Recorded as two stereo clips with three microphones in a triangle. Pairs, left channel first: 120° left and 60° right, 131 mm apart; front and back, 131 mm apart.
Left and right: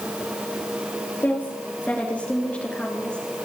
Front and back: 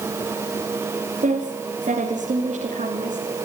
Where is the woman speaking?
165° right, 2.5 m; by 3.3 s 160° right, 4 m.